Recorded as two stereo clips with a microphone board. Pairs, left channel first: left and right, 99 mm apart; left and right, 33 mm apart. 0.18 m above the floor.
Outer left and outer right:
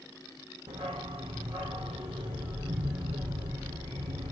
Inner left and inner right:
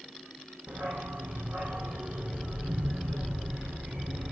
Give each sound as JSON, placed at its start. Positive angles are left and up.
{"t": 0.7, "sound": "a dog barking", "side_deg": -70, "distance_m": 2.5}